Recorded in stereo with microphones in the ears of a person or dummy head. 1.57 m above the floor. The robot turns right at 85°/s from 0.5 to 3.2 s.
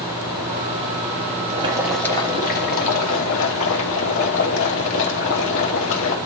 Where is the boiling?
35° right, 2.5 m; by 6.2 s 105° left, 2.5 m.